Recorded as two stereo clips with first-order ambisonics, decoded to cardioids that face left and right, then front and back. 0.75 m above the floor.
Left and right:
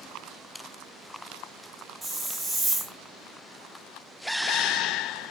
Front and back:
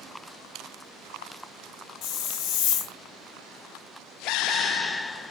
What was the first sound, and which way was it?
A hiss, 15° right.